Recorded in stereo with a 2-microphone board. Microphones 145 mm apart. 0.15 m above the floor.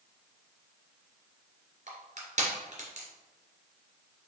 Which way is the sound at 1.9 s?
50° right (ahead or behind).